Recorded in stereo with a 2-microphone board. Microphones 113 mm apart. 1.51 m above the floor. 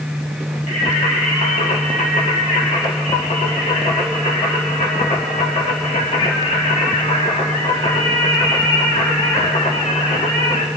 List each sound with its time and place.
0.7 s singing: 80° left, 1.6 m